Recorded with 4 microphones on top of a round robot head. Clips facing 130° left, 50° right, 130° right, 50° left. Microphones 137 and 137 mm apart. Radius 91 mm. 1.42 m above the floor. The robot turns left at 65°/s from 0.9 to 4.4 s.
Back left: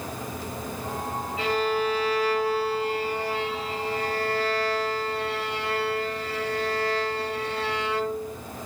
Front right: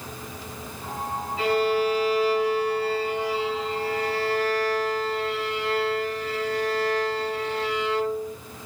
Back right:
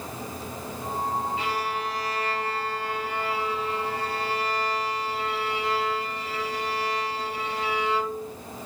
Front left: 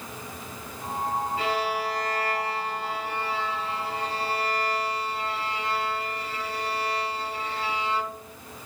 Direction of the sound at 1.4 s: Straight ahead.